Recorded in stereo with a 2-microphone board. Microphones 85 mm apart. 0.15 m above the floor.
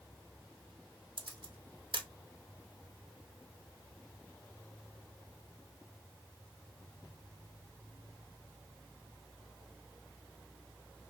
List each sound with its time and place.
1.2 s a camera shutter: 65° right (ahead or behind), 0.7 m